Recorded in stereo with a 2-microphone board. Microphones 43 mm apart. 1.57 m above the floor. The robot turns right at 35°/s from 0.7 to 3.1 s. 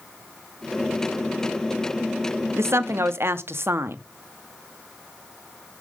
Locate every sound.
2.6 s a woman speaking: 80° right, 0.6 m; by 4.0 s 70° right (ahead or behind), 0.6 m